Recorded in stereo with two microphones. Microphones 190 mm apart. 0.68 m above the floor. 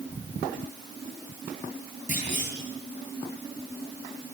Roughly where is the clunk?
Left.